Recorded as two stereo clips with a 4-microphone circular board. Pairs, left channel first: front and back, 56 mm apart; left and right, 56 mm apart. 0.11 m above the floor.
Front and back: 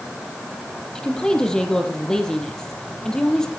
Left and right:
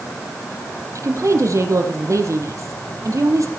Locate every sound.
0.9 s a woman speaking: 75° right, 3.5 m